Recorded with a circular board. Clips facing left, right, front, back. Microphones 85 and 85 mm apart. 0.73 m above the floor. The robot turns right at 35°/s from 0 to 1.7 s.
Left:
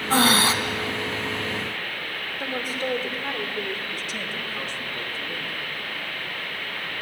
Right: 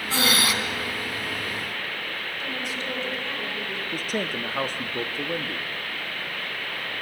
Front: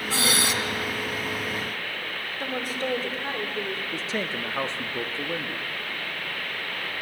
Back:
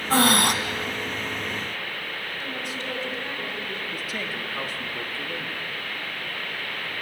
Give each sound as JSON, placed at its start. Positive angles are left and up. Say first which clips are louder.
{"t": 0.1, "sound": "breathing", "louder": "left 5 dB, back 7 dB", "azimuth_deg": 135, "distance_m": 1.4}
{"t": 2.4, "sound": "a woman speaking", "louder": "left 6 dB, front 7 dB", "azimuth_deg": 45, "distance_m": 3.0}
{"t": 3.9, "sound": "a man speaking", "louder": "right 4 dB, front 2 dB", "azimuth_deg": -60, "distance_m": 1.0}